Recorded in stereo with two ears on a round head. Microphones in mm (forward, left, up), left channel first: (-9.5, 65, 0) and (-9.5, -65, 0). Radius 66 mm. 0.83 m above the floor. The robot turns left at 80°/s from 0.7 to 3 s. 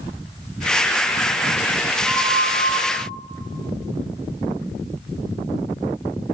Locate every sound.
2.0 s a flute: 165° left, 8.5 m; by 2.8 s 105° left, 8.5 m